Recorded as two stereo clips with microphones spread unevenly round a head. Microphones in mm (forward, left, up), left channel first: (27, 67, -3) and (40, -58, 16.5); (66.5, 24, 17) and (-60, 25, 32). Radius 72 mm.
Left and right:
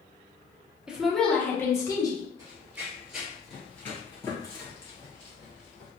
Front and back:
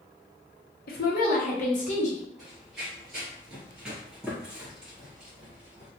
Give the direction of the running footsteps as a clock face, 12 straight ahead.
3 o'clock.